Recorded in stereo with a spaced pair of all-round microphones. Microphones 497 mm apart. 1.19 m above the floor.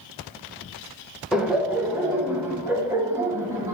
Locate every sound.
1.3 s laughter: centre (ahead or behind), 1.6 m; by 3.7 s 5° right (ahead or behind), 2.5 m